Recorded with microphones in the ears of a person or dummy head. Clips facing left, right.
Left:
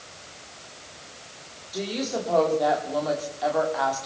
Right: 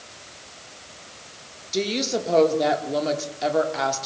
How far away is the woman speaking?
About 4 m.